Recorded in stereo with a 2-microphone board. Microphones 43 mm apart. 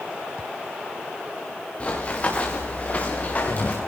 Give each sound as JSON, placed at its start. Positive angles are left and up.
{"t": 1.8, "sound": "running footsteps", "side_deg": 30, "distance_m": 6.5}